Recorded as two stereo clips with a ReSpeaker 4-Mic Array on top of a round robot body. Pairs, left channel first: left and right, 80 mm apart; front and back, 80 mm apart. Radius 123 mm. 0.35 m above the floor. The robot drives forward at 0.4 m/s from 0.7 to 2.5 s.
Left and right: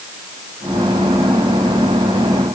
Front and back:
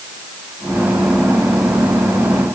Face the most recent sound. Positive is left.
No sound to turn to.